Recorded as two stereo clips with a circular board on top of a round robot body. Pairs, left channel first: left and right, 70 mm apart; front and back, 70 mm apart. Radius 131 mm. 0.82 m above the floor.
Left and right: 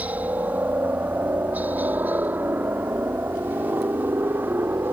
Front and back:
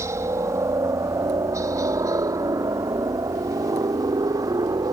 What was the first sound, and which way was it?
A helicopter, 150° right.